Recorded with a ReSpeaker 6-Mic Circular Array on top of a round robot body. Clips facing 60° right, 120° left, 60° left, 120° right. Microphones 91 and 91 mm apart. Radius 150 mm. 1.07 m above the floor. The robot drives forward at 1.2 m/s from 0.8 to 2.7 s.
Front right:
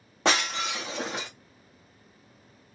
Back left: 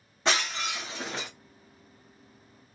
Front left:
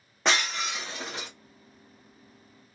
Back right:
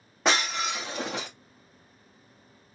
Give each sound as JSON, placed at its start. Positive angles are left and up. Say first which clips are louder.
{"t": 0.2, "sound": "breaking glass", "louder": "front right 3 dB, back right 2 dB", "azimuth_deg": -35, "distance_m": 0.5}